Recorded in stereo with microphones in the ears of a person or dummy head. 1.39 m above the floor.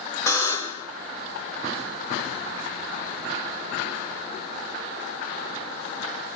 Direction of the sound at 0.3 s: 10° left (ahead or behind).